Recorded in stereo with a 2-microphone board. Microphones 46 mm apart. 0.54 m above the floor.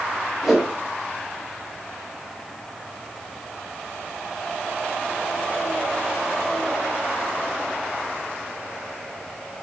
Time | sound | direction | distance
0.4 | a whoosh | 5° right (ahead or behind) | 1.2 m